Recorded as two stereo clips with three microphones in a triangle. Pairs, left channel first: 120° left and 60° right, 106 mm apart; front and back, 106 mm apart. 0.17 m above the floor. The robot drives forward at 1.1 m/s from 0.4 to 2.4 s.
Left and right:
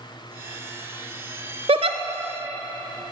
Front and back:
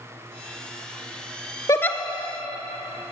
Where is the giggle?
55° right, 0.7 m; by 2.0 s 85° right, 0.6 m.